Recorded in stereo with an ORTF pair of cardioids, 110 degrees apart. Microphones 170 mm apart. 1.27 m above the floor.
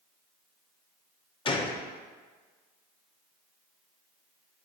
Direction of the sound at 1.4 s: 30° left.